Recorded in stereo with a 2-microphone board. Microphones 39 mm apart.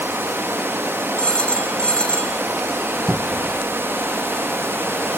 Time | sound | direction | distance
0.0 | running water | 80° right | 0.8 m
1.2 | a phone ringing | 25° left (ahead or behind) | 2 m
3.1 | a cupboard door | 5° left (ahead or behind) | 1.0 m